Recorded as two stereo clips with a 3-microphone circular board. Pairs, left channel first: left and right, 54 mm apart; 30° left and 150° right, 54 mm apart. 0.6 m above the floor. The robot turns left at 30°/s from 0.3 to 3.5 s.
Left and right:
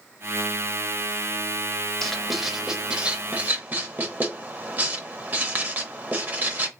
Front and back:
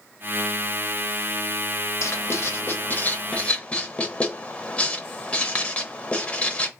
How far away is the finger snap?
I don't hear a finger snap.